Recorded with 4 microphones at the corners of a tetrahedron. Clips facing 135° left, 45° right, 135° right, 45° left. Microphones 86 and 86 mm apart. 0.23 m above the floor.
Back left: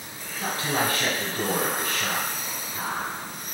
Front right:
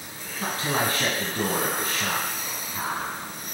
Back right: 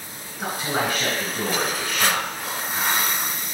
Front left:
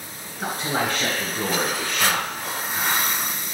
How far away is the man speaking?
About 1.4 m.